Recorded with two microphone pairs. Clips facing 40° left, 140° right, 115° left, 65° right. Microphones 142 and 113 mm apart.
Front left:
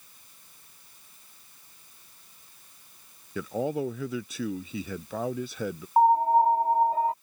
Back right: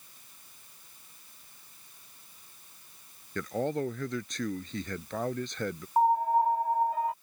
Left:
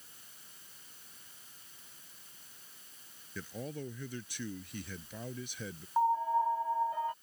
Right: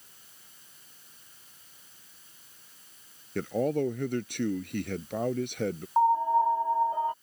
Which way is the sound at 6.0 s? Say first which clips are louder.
Front left 5 dB, right 6 dB; 10° right.